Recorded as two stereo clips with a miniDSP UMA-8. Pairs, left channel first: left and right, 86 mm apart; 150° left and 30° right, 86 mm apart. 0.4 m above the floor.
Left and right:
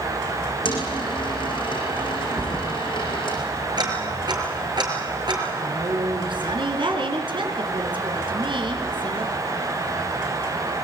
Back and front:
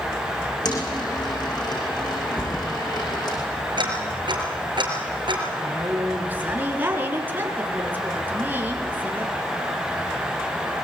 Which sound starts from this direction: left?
A dropped coin, at 0.7 s.